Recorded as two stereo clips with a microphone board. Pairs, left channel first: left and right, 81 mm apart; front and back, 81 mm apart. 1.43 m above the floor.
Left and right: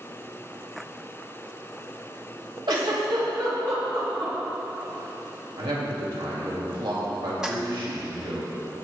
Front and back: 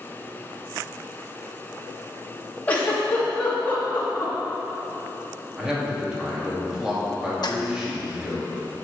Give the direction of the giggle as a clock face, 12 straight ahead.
2 o'clock.